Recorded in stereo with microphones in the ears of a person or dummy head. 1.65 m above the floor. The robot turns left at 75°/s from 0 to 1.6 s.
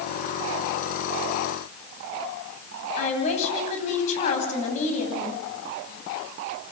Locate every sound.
3.0 s a woman speaking: 45° left (ahead or behind), 9.5 m